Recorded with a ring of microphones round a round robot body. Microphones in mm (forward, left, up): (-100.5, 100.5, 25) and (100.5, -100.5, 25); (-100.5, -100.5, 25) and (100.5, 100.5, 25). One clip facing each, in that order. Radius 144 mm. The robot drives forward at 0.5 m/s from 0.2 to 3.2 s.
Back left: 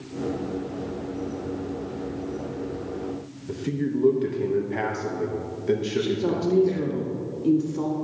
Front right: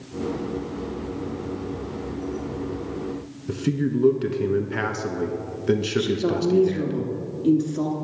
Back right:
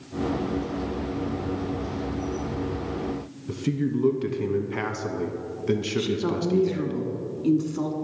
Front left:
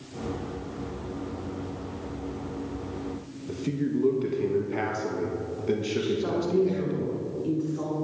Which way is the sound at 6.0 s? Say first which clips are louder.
Front right 2 dB, back right 1 dB; 125° right.